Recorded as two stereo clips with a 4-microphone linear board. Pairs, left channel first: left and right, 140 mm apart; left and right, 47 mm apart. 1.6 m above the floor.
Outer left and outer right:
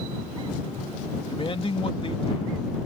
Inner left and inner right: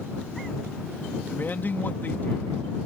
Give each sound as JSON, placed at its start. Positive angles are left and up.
{"t": 1.3, "sound": "a man speaking", "side_deg": 40}